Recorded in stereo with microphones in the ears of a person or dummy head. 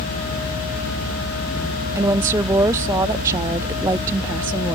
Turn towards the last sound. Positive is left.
turn(degrees=-10)  # may be behind; listen again after turning